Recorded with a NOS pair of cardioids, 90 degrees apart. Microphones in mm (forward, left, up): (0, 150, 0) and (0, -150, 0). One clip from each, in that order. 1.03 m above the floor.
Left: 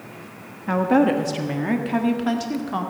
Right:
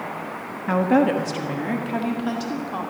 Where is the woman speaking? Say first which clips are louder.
Even; 5° right, 1.1 m; by 2.9 s 20° left, 2 m.